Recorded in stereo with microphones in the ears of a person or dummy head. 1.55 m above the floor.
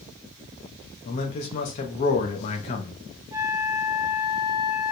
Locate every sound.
1.1 s a man speaking: 35° left (ahead or behind), 0.7 m
3.3 s a flute: 15° right (ahead or behind), 0.7 m